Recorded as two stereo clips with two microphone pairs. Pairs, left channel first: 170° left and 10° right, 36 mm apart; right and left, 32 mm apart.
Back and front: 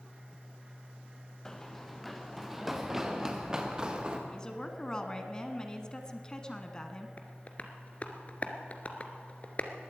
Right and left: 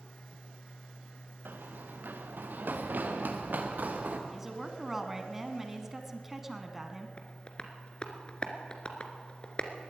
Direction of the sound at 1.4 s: 95° left.